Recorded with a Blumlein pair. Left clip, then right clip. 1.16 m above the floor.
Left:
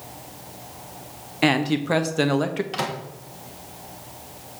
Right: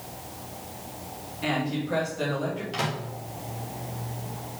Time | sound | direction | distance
1.4 | a man speaking | 55° left | 1.3 m
2.7 | a microwave | 15° left | 1.8 m